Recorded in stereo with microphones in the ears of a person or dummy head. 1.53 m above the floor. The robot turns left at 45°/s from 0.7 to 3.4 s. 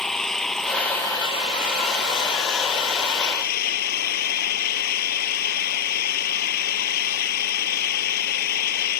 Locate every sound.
0.0 s an engine running: straight behind; by 9.0 s 60° left